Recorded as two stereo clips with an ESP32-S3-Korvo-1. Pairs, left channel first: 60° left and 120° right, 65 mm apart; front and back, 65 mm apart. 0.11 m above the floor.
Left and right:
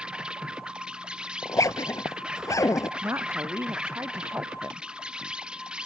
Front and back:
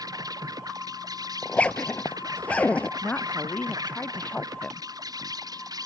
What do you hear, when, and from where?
0.0 s an insect: 165° left
1.4 s a zipper: 65° left
3.0 s a woman speaking: 70° right